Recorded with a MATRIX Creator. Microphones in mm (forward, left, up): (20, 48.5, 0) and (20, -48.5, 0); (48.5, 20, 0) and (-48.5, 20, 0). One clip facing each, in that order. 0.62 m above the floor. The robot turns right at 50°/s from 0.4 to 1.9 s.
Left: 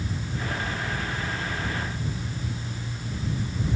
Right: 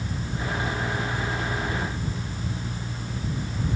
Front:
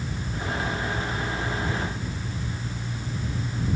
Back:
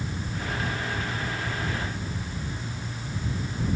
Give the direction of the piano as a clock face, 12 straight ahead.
I don't hear a piano.